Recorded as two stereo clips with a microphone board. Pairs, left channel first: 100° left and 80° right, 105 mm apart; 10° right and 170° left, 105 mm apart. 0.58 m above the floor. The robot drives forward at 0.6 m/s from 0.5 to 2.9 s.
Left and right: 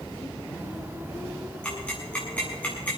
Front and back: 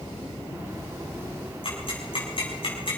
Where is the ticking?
25° left, 6.5 m.